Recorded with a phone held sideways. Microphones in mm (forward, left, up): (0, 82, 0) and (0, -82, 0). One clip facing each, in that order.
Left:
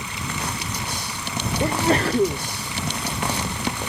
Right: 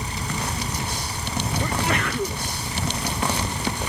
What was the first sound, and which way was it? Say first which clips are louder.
A fan: right 1 dB; 40° right (ahead or behind).